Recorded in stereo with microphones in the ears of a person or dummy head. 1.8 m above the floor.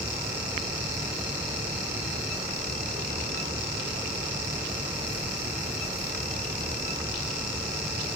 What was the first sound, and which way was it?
Only background noise.